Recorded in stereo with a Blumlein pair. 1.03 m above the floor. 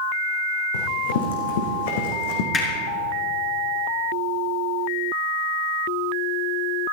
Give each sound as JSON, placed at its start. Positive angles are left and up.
{"t": 0.7, "sound": "running footsteps", "azimuth_deg": 65, "distance_m": 4.0}
{"t": 2.5, "sound": "hammering", "azimuth_deg": 20, "distance_m": 5.0}